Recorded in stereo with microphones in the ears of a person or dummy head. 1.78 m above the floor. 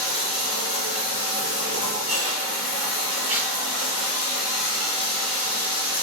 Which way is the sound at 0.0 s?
30° right (ahead or behind).